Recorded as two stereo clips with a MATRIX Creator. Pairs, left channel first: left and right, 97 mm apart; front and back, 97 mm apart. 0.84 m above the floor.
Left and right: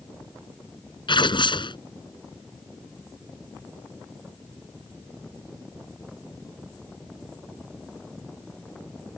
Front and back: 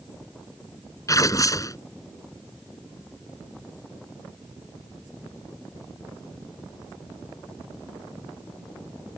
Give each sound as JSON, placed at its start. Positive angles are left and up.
{"t": 1.1, "sound": "tearing paper", "azimuth_deg": 55}